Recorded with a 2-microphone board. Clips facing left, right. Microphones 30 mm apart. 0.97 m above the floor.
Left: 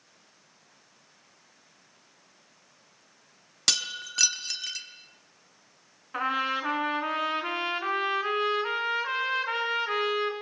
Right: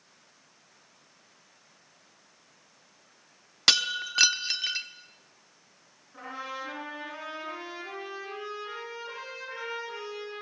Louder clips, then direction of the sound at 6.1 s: Left 10 dB; 75° left (ahead or behind).